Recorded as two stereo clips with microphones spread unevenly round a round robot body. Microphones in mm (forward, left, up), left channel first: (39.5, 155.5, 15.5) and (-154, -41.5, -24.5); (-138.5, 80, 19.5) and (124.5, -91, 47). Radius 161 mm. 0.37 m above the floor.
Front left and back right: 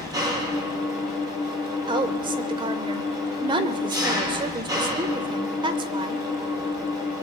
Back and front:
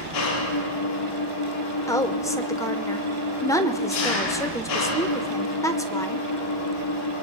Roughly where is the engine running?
Behind left.